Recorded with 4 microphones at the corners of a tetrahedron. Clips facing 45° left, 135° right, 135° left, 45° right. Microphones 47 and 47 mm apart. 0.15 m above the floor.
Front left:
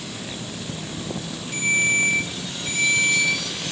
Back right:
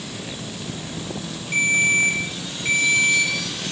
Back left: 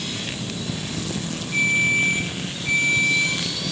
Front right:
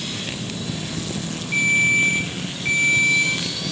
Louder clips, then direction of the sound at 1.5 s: Back right 2 dB, front right 2 dB; 90° right.